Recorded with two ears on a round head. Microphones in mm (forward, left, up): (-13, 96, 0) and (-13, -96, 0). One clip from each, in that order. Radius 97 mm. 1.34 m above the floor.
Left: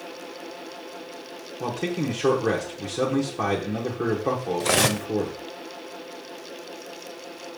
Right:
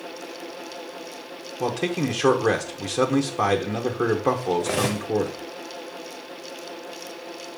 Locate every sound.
1.6 s a man speaking: 40° right (ahead or behind), 1.2 m
4.6 s cutlery clinking: 35° left (ahead or behind), 0.5 m